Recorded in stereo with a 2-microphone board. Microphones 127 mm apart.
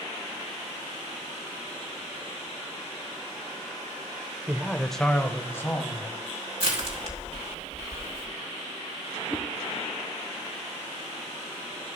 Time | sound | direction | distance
4.5 | a man speaking | 15° right (ahead or behind) | 0.8 m
6.6 | crushing | 55° right (ahead or behind) | 2.5 m
9.3 | a whoosh | 10° left (ahead or behind) | 1.3 m